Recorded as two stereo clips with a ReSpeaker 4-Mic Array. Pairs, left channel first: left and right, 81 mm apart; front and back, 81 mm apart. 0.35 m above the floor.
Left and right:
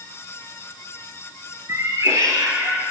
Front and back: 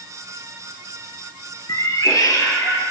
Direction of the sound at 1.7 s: 35° right.